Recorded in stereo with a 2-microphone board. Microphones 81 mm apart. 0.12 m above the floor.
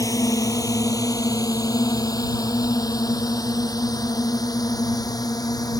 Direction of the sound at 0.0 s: 45° left (ahead or behind).